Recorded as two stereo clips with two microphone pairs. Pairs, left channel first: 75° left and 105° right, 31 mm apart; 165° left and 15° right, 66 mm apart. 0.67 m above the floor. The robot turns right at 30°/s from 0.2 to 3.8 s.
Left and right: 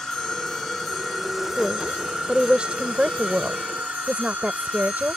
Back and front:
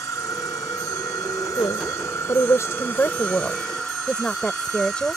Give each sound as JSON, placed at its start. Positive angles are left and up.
{"t": 0.0, "sound": "an insect", "azimuth_deg": 140}
{"t": 1.6, "sound": "a woman speaking", "azimuth_deg": 175}